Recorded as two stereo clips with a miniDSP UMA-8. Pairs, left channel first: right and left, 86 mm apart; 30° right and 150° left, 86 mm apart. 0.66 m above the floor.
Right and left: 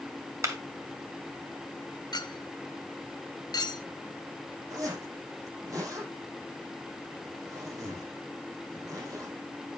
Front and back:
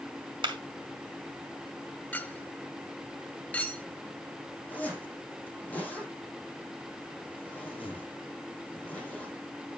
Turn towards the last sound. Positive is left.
turn(degrees=40)